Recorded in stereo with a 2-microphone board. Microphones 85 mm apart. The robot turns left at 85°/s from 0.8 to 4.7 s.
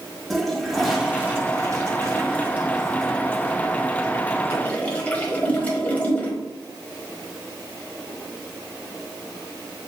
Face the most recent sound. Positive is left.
turn(degrees=20)  # may be behind; listen again after turning